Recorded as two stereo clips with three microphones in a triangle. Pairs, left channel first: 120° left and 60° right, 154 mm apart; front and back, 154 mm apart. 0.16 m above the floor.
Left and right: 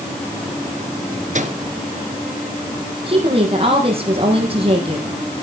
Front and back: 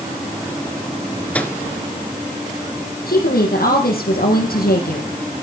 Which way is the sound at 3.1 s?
5° right.